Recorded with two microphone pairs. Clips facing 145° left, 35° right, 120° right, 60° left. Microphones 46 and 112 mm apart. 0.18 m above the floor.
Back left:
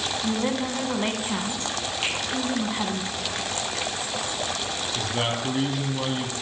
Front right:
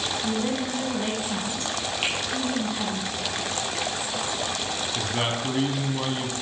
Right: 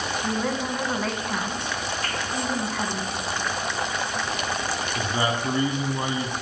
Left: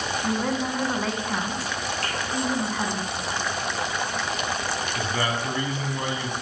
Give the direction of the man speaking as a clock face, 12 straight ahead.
4 o'clock.